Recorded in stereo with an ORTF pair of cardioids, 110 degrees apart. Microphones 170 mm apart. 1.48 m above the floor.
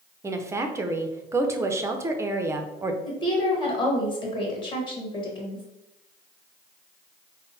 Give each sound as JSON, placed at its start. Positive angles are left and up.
{"t": 0.2, "sound": "a woman speaking", "azimuth_deg": -15, "distance_m": 0.6}
{"t": 3.0, "sound": "a woman speaking", "azimuth_deg": 30, "distance_m": 1.6}